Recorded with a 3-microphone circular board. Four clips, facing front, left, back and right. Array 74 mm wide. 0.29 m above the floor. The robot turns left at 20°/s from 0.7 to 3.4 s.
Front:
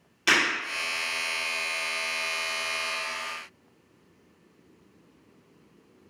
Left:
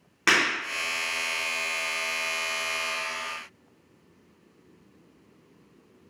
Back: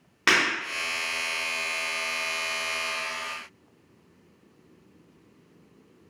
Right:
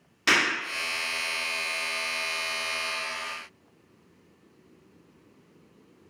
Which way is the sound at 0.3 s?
145° left.